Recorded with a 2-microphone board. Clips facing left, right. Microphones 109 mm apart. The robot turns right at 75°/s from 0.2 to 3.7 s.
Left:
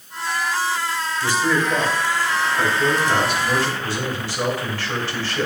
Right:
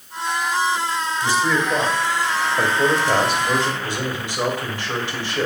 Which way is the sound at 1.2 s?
155° left.